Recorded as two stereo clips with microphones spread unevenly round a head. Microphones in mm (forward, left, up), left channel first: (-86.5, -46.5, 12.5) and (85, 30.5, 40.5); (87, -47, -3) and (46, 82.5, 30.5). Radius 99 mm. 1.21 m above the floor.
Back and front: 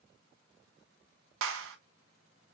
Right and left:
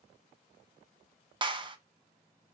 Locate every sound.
1.4 s a clap: 50° left, 0.6 m